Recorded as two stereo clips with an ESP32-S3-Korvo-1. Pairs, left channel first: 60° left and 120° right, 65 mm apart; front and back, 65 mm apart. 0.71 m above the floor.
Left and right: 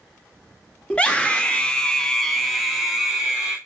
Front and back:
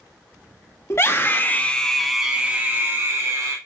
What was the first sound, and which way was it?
A scream, straight ahead.